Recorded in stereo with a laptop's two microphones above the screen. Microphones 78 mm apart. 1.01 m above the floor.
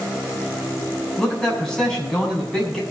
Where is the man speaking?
10° left (ahead or behind), 7 m.